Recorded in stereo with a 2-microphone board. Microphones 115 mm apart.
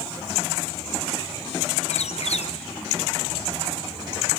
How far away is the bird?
About 1.0 m.